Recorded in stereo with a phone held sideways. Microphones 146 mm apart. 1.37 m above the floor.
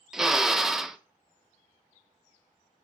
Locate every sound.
0.1 s a drill: centre (ahead or behind), 0.5 m